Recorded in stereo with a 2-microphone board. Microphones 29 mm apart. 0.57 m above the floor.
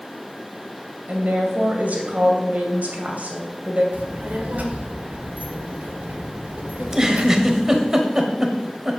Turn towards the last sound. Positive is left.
turn(degrees=-15)  # may be behind; listen again after turning